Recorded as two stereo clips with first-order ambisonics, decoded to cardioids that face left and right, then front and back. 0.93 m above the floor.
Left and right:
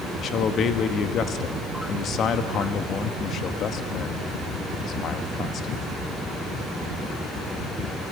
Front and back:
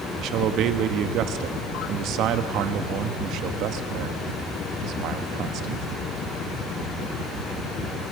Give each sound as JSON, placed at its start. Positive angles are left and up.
{"t": 0.2, "sound": "a man speaking", "azimuth_deg": 145, "distance_m": 1.2}